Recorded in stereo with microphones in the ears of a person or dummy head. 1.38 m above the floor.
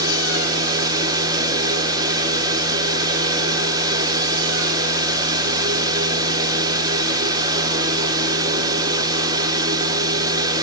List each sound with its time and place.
0.0 s a fan: 20° right (ahead or behind), 1.5 m